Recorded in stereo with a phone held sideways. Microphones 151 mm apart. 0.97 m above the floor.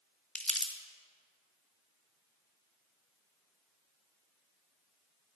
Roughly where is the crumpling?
Centre.